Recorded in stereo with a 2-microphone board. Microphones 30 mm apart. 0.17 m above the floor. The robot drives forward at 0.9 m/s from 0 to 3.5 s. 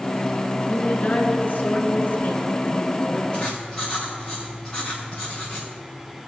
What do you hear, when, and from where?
0.7 s a woman speaking: 45° left (ahead or behind), 2.5 m; by 3.2 s 50° left (ahead or behind), 2.5 m
3.3 s writing: 10° left (ahead or behind), 5 m